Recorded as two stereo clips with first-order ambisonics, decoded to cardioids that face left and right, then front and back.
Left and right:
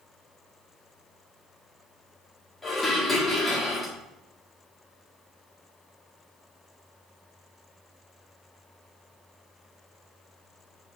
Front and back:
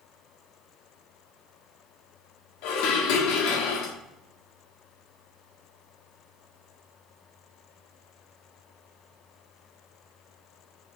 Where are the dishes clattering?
10° left, 1.4 m.